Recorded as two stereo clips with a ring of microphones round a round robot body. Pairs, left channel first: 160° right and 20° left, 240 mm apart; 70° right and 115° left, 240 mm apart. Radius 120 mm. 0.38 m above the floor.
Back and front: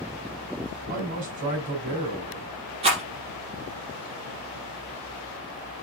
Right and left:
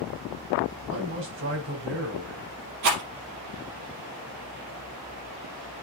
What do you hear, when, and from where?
0.9 s a man speaking: 80° left, 3 m
2.8 s a rattle: 90° left, 4 m